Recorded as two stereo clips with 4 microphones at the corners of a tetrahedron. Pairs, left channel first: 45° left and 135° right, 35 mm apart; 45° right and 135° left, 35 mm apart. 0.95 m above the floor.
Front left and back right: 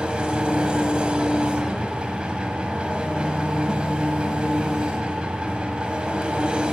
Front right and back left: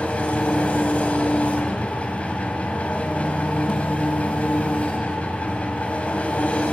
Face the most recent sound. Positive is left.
turn(degrees=-80)